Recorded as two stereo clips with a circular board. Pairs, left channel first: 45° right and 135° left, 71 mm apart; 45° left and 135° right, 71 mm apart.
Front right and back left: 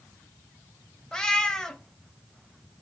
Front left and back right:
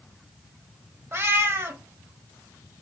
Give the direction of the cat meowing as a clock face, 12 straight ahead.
4 o'clock.